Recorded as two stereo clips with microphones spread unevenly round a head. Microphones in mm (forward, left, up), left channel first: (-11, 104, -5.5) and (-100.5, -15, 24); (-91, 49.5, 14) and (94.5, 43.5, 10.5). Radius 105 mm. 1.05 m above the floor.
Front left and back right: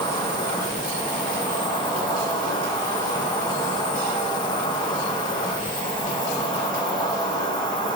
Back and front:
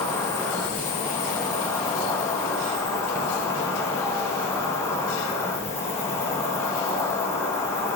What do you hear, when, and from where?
0.0 s an insect: 105° left, 1.6 m